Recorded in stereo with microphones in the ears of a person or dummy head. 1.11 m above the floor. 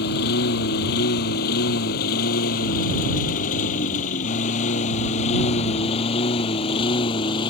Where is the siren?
No siren in this recording.